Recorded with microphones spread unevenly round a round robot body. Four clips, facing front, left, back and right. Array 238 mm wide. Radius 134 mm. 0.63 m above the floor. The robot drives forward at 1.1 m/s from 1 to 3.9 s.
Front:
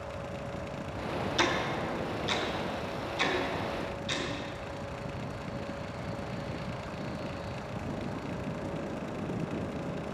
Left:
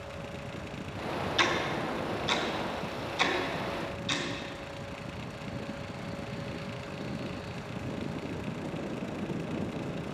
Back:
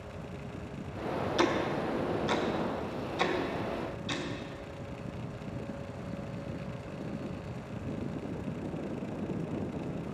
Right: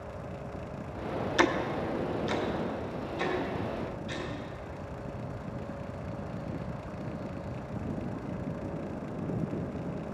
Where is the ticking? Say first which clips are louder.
Right 4 dB, back 2 dB; 115° right, 0.6 m; by 4.2 s 170° right, 3 m.